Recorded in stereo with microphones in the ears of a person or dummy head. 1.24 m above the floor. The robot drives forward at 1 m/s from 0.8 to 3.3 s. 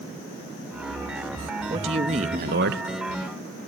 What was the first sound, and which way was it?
A man speaking, 25° right (ahead or behind).